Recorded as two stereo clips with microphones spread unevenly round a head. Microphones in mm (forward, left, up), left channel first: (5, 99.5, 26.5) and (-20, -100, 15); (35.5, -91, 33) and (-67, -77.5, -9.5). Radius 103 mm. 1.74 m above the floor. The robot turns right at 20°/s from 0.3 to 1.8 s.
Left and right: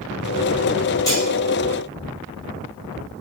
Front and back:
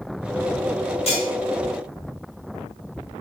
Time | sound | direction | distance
1.1 | cutlery clinking | 10° left | 3 m